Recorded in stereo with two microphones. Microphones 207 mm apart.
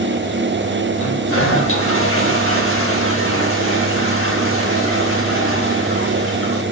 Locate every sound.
1.0 s a toilet flushing: 75° left (ahead or behind), 5 m